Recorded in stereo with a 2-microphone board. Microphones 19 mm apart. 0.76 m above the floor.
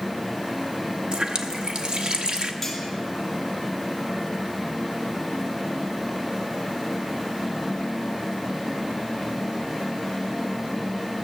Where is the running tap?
55° right (ahead or behind), 0.9 m.